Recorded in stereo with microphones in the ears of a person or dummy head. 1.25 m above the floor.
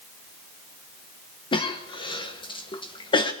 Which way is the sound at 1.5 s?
25° left (ahead or behind).